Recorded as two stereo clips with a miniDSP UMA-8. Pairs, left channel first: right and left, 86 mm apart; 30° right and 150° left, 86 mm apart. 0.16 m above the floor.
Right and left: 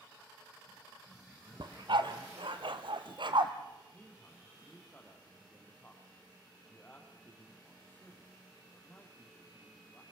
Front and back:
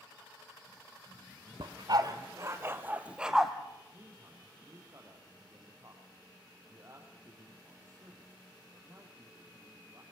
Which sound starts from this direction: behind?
A man speaking, at 3.9 s.